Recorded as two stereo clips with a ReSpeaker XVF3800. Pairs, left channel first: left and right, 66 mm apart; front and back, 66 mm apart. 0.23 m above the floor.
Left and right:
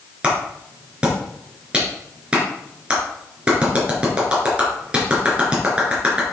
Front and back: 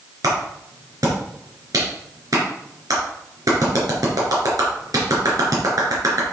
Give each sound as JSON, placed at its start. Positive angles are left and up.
{"t": 0.2, "sound": "a clap", "azimuth_deg": -160, "distance_m": 3.5}